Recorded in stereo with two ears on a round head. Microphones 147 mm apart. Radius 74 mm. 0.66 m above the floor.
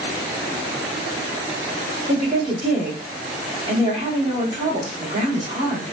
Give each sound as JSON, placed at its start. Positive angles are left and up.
{"t": 2.1, "sound": "a woman speaking", "side_deg": -40, "distance_m": 1.6}